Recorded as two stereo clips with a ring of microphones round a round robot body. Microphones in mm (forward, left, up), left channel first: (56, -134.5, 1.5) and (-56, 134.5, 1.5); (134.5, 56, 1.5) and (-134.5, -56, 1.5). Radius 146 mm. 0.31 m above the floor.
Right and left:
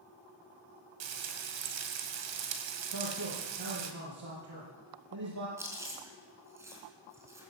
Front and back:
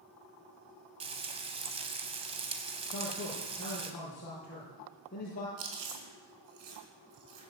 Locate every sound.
1.0 s frying: 135° left, 1.9 m
2.9 s a man speaking: 85° left, 6.5 m
5.6 s chewing: 165° right, 4 m